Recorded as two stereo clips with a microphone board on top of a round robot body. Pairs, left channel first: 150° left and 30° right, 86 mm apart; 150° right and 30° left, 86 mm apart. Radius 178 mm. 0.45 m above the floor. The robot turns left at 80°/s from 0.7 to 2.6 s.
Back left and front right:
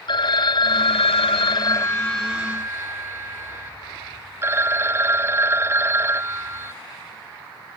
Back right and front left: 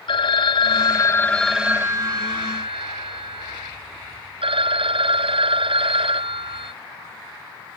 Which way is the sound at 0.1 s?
175° right.